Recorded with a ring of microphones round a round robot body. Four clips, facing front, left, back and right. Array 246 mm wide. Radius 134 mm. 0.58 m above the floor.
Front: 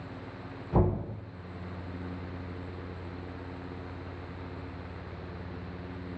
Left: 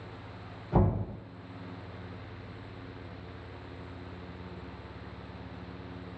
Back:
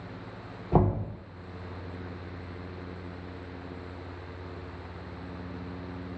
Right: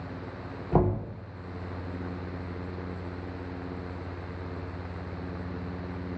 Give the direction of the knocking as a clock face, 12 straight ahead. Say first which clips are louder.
Right 3 dB, back 3 dB; 5 o'clock.